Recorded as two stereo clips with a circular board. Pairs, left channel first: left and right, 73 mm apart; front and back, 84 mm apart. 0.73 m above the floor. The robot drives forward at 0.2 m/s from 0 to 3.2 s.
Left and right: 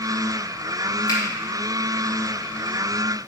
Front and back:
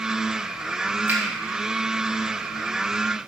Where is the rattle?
I don't hear a rattle.